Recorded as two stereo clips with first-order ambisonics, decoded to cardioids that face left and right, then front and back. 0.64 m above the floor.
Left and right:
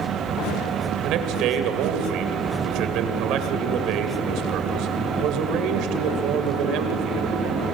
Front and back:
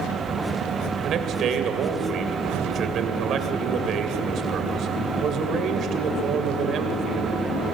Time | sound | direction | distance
1.0 | a man speaking | 125° right | 2.5 m